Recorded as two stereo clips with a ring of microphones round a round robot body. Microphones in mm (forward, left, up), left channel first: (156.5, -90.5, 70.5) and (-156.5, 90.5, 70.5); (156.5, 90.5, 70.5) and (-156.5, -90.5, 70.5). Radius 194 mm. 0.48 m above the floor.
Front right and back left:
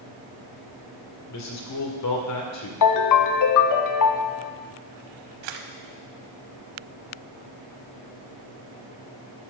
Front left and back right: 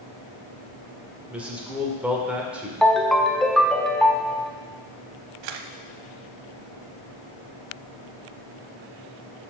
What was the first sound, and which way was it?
A man speaking, 65° right.